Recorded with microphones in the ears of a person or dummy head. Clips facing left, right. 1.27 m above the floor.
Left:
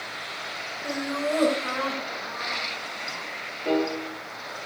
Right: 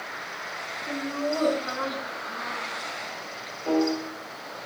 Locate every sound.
0.8 s laughter: 80° left, 5 m; by 3.3 s 65° left (ahead or behind), 6 m
3.6 s a piano: 25° left (ahead or behind), 9 m